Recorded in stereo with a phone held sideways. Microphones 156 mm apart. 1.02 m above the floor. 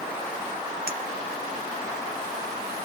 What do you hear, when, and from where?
0.9 s a clink: 80° right, 1.2 m